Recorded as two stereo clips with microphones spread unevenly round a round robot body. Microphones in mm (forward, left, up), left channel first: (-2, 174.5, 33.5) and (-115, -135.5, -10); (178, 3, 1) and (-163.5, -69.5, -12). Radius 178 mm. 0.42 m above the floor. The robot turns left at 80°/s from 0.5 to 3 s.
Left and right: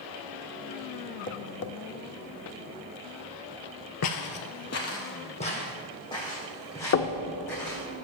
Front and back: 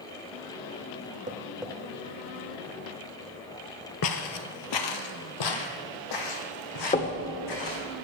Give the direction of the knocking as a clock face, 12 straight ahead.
10 o'clock.